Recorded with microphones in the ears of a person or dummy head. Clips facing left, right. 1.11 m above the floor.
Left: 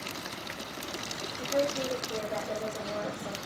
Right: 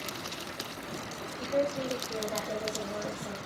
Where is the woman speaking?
10° left (ahead or behind), 4 m.